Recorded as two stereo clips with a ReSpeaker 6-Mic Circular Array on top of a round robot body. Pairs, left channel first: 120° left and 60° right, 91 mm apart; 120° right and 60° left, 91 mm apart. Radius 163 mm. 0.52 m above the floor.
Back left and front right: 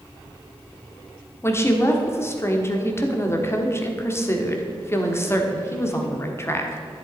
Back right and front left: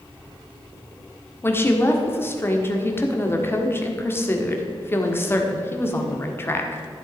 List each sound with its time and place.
1.4 s a woman speaking: straight behind, 1.7 m